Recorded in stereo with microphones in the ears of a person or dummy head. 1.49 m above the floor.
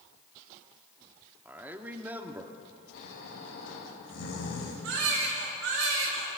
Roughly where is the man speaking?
Centre.